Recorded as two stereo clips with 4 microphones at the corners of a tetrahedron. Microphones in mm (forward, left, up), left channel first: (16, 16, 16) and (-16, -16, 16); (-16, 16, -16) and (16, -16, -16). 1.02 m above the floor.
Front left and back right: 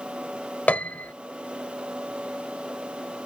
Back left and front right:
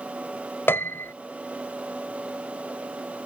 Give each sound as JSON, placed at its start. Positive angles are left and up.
{"t": 0.7, "sound": "a piano", "azimuth_deg": 105}